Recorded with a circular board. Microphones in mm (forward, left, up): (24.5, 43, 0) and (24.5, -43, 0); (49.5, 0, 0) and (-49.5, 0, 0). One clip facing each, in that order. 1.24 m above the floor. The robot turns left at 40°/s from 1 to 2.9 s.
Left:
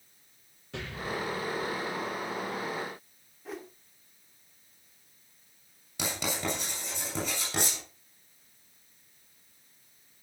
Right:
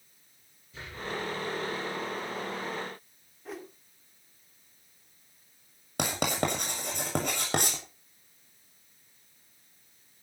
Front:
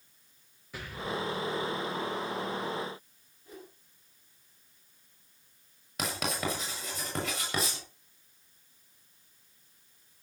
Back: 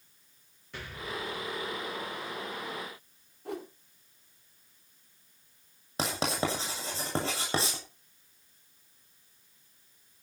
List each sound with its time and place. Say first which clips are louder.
0.7 s an explosion: left 2 dB, front 3 dB; 85° left, 6.5 m; by 2.1 s 45° left, 6.5 m
3.5 s a whoosh: even, back 10 dB; straight behind, 1.9 m
6.0 s writing: right 5 dB, back 3 dB; 120° right, 7 m